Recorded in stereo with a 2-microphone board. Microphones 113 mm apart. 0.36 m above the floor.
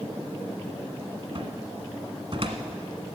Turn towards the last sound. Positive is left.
turn(degrees=-55)  # may be behind; listen again after turning